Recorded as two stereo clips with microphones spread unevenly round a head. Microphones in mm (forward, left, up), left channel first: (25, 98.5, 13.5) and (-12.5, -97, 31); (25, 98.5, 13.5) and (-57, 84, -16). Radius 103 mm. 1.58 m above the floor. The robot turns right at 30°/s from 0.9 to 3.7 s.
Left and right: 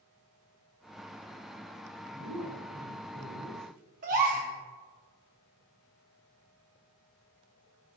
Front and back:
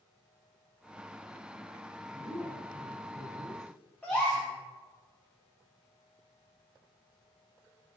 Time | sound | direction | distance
2.1 | a woman speaking | 105° right | 2.5 m
4.0 | a gasp | 60° right | 1.3 m